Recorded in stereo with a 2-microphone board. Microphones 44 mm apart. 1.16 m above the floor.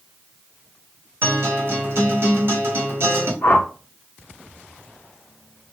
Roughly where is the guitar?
Right.